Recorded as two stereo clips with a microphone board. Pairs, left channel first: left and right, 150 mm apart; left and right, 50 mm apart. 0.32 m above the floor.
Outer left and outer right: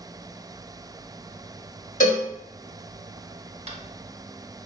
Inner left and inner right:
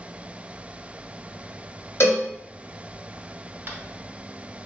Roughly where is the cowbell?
Left.